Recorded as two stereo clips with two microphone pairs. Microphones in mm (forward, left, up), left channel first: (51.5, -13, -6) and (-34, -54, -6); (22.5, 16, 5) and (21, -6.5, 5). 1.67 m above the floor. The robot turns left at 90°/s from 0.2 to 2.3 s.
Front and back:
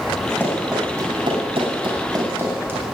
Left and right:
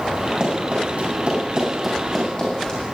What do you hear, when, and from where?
0.4 s running footsteps: 40° right, 9 m; by 2.8 s 140° left, 7.5 m